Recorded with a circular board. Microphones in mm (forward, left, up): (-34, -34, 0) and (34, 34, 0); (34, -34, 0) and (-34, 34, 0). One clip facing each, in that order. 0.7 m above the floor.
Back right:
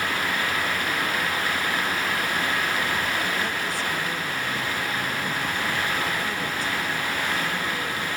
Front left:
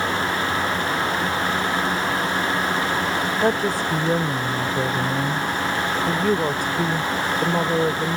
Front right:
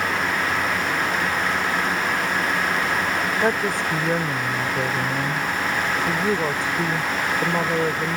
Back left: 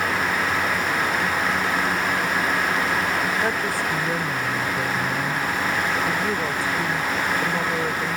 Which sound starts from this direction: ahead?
A woman speaking, at 3.4 s.